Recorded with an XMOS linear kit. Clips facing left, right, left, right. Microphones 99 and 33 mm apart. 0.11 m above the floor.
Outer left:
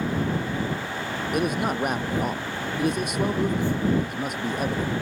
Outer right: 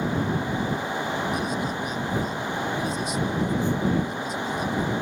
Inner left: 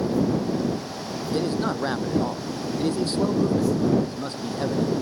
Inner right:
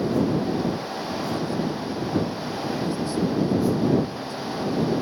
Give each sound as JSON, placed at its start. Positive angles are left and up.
{"t": 1.3, "sound": "a man speaking", "side_deg": 60}